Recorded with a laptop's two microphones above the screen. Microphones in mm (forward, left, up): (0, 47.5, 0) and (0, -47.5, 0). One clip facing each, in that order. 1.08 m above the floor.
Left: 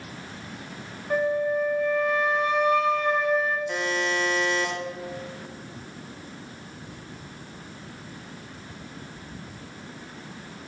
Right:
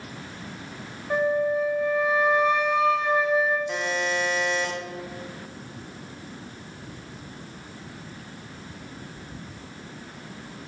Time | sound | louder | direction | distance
1.1 | a flute | right 1 dB | 5° right (ahead or behind) | 0.8 m
3.7 | a buzzer | even | 5° right (ahead or behind) | 1.0 m